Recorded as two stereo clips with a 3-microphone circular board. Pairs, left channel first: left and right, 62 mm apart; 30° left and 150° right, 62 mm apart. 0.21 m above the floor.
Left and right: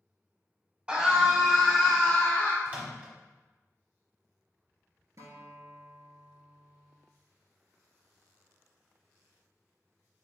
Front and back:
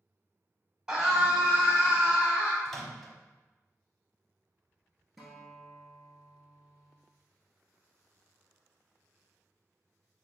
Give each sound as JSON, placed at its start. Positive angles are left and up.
{"t": 0.9, "sound": "a scream", "azimuth_deg": -90, "distance_m": 1.4}
{"t": 2.6, "sound": "a microwave", "azimuth_deg": -50, "distance_m": 1.0}
{"t": 5.2, "sound": "a guitar", "azimuth_deg": -60, "distance_m": 1.3}